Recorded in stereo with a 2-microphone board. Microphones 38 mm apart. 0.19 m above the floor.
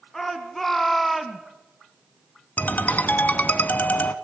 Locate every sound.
0.1 s a shout: 10° left (ahead or behind), 2.5 m; by 1.4 s centre (ahead or behind), 1.5 m
2.6 s a ringtone: 50° left (ahead or behind), 0.9 m